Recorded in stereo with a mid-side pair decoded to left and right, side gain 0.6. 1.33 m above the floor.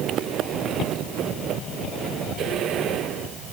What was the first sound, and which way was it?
Only background noise.